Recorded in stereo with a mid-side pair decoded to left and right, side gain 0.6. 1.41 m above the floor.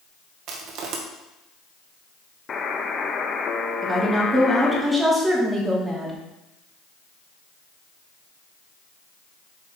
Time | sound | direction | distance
0.5 | crushing | 60° right | 1.6 m
2.5 | a buzzer | 35° left | 1.1 m
3.8 | a woman speaking | 15° right | 3 m